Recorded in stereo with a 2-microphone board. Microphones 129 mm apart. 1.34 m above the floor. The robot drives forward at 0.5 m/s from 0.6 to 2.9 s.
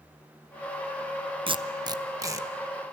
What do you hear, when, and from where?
1.5 s tape being pulled: 40° right (ahead or behind), 0.6 m; by 2.5 s 25° right (ahead or behind), 1.0 m